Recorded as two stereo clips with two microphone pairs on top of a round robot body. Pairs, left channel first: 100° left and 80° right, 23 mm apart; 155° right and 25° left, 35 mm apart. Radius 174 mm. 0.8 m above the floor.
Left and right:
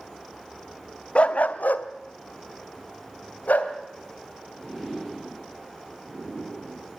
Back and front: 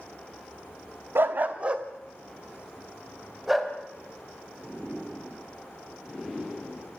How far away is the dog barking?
About 0.6 m.